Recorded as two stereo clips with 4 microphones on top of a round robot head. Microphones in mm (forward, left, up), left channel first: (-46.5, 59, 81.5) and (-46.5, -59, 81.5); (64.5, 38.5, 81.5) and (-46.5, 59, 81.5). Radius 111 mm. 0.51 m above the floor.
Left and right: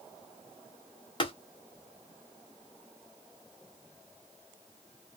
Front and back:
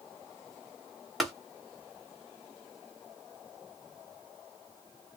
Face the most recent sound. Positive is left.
turn(degrees=80)